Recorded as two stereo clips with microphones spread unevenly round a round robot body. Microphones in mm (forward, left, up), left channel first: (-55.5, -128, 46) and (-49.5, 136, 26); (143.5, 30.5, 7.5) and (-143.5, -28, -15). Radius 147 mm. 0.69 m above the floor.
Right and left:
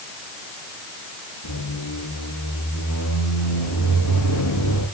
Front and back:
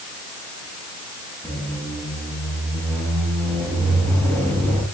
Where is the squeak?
75° right, 9.5 m.